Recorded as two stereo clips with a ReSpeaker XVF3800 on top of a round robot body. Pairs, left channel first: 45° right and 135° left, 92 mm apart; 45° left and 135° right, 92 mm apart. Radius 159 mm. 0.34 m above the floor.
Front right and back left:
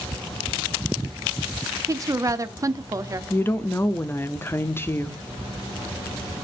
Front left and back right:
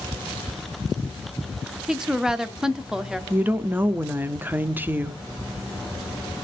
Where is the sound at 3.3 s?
85° right, 0.9 m.